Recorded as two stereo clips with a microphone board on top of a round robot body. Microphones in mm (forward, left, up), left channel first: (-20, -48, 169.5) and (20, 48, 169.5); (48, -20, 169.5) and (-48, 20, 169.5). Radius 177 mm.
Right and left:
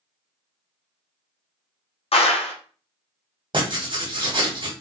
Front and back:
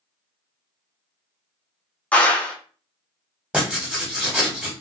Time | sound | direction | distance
2.1 | a clap | 100° right | 0.9 m
3.5 | writing | 80° left | 1.7 m